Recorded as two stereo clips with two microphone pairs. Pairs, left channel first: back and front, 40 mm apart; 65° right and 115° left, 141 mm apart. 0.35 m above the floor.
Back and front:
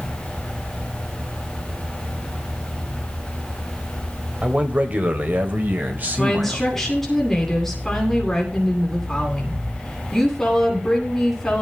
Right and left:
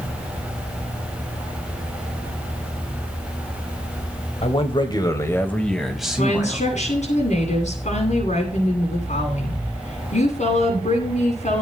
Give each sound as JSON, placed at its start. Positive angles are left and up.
{"t": 4.4, "sound": "a man speaking", "azimuth_deg": -45, "distance_m": 2.0}
{"t": 6.2, "sound": "a woman speaking", "azimuth_deg": -95, "distance_m": 9.0}